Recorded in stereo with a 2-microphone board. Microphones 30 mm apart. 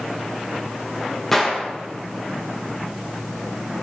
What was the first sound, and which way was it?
A gunshot, 10° left (ahead or behind).